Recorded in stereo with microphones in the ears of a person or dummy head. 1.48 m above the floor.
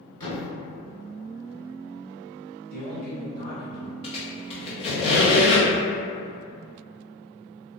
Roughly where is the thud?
Left.